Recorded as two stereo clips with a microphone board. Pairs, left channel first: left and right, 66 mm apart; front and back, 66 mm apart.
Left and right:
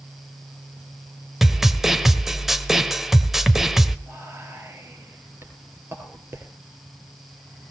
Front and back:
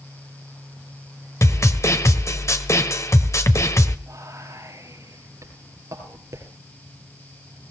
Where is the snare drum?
5° right, 1.4 m.